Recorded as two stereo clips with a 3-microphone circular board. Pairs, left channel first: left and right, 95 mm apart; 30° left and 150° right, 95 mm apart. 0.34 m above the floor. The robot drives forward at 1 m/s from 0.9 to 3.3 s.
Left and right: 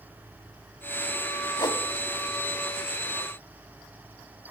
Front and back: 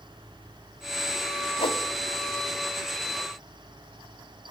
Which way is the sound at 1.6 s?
45° left.